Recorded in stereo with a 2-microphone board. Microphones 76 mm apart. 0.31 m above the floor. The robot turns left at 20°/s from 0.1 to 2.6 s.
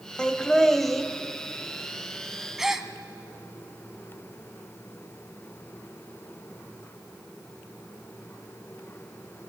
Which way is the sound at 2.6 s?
5° right (ahead or behind).